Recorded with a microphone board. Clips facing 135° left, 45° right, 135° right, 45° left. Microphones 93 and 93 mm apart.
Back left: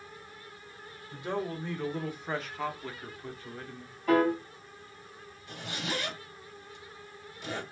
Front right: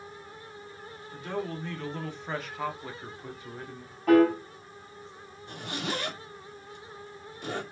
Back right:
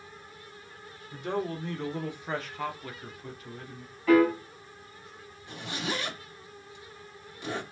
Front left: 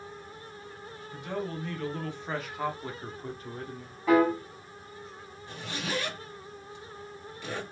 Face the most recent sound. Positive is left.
turn(degrees=-65)